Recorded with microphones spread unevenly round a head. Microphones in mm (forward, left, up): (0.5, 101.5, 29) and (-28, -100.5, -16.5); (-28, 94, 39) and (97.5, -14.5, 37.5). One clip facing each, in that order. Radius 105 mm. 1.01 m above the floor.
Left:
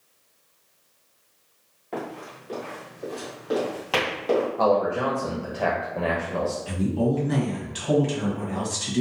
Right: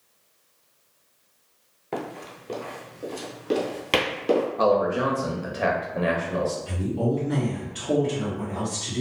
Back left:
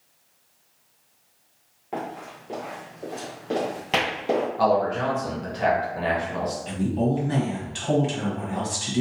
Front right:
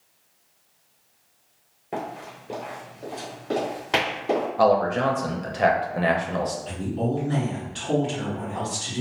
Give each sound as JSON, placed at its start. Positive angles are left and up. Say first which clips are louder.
{"t": 1.9, "sound": "running footsteps", "louder": "right 1 dB, even", "azimuth_deg": -80, "distance_m": 1.1}
{"t": 4.6, "sound": "a man speaking", "louder": "even, front right 5 dB", "azimuth_deg": -45, "distance_m": 0.7}
{"t": 6.7, "sound": "a woman speaking", "louder": "left 2 dB, back left 3 dB", "azimuth_deg": 115, "distance_m": 1.4}